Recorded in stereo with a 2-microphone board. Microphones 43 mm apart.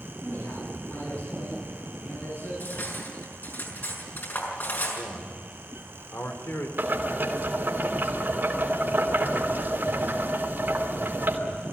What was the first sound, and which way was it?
A man speaking, 80° left.